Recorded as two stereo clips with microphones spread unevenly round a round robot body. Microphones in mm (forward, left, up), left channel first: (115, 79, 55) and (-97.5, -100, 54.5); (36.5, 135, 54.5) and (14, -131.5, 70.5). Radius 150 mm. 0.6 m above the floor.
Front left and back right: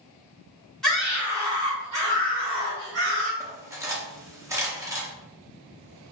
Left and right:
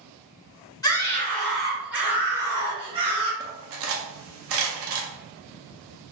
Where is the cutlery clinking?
60° right, 0.6 m.